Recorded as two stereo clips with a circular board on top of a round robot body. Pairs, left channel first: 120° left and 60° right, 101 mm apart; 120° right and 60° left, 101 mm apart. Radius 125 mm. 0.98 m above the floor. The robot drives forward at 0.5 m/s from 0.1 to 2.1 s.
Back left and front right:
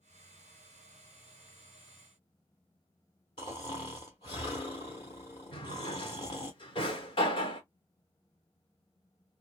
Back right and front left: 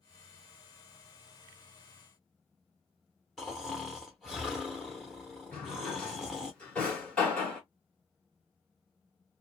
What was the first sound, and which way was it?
Snoring, 155° left.